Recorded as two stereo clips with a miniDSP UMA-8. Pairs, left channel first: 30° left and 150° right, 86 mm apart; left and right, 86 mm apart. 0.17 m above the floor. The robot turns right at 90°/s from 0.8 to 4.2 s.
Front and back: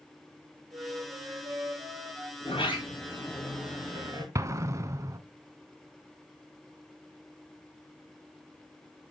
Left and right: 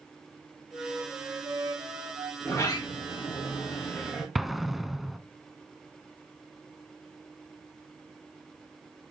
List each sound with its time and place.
0.7 s a flute: 170° left, 3.5 m; by 2.3 s 55° right, 3.5 m
2.4 s a sliding door: 15° left, 4 m; by 4.2 s 175° left, 4 m
4.3 s an explosion: 175° right, 0.6 m